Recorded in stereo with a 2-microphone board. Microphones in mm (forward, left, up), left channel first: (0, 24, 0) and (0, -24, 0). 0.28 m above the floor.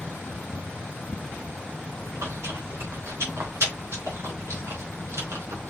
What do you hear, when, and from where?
2.0 s chewing: 70° right (ahead or behind), 3 m